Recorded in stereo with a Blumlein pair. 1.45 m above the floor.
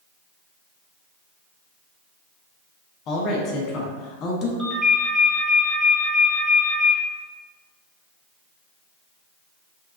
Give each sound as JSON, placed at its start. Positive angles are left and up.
{"t": 3.1, "sound": "a woman speaking", "azimuth_deg": 30, "distance_m": 0.9}
{"t": 4.6, "sound": "a ringtone", "azimuth_deg": -15, "distance_m": 1.2}